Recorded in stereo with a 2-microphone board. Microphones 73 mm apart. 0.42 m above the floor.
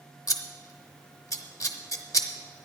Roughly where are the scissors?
Left.